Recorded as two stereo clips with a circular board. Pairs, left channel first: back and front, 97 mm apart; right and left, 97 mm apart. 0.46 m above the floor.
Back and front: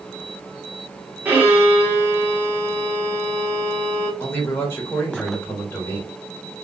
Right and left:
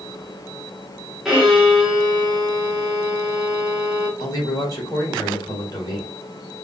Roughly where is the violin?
Ahead.